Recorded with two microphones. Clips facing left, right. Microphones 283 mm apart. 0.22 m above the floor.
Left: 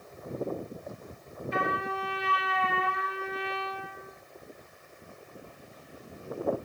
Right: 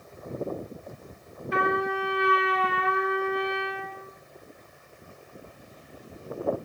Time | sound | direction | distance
1.5 | a trumpet | 70° right (ahead or behind) | 2.0 m